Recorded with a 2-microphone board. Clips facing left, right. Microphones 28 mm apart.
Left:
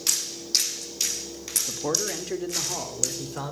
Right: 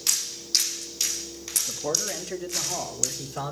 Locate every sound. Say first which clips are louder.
1.7 s a man speaking: left 1 dB; 30° left (ahead or behind), 1.3 m; by 3.5 s 10° left (ahead or behind), 1.9 m